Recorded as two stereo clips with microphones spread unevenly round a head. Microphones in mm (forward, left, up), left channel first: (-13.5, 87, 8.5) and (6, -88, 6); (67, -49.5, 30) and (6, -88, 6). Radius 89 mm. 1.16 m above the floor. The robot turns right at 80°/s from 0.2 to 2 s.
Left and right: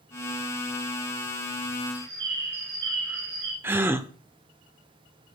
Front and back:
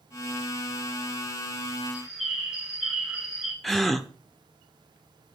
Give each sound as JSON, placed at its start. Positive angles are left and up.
{"t": 1.9, "sound": "a bird", "azimuth_deg": -65, "distance_m": 6.5}
{"t": 3.6, "sound": "a gasp", "azimuth_deg": -15, "distance_m": 0.8}